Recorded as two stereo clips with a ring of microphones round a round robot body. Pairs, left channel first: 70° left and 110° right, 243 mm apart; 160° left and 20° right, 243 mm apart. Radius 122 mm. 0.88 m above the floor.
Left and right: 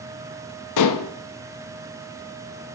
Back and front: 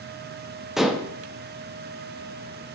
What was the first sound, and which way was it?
Dishes clattering, 65° left.